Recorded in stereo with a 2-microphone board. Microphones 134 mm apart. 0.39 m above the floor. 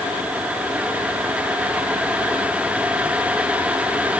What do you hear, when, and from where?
Only background noise.